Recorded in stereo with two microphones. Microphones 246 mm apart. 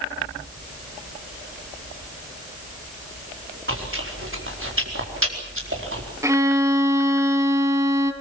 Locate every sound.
3.7 s chewing: 55° right (ahead or behind), 4.5 m
6.2 s a violin: 10° right (ahead or behind), 2 m